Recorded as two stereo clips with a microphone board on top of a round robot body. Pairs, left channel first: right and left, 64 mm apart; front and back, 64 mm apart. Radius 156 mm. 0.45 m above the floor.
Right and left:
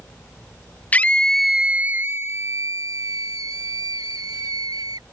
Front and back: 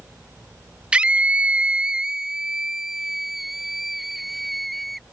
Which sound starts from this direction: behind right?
A scream, at 0.9 s.